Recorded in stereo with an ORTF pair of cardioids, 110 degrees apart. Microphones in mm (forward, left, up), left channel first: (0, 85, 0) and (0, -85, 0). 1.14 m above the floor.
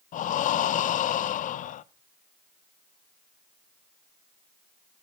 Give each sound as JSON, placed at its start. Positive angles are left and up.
{"t": 0.1, "sound": "breathing", "azimuth_deg": 50, "distance_m": 0.5}